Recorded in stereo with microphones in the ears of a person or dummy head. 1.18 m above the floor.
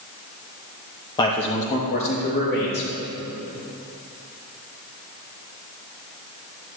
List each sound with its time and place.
1.2 s a man speaking: 25° left (ahead or behind), 0.9 m; by 2.9 s 65° left (ahead or behind), 2.5 m